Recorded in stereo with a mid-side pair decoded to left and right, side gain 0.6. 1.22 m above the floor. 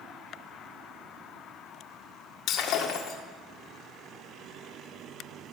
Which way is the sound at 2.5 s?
60° left.